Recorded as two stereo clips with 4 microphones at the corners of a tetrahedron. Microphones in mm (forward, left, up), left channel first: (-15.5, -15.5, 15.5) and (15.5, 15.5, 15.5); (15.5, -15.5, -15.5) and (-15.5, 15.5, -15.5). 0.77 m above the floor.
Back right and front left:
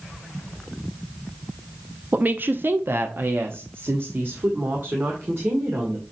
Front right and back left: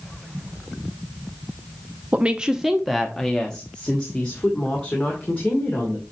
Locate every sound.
2.1 s a woman speaking: 85° left, 0.6 m; by 6.0 s 10° left, 2.5 m